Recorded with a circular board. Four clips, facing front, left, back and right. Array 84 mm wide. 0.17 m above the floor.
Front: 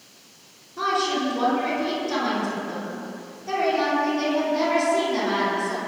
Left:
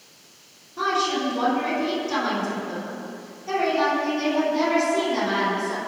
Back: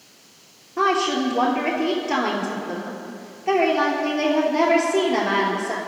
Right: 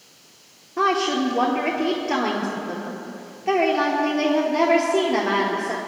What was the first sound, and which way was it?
A woman speaking, 130° right.